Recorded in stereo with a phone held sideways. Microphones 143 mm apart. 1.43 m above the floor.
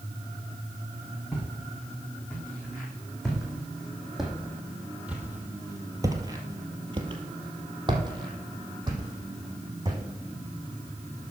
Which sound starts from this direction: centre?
Footsteps, at 1.3 s.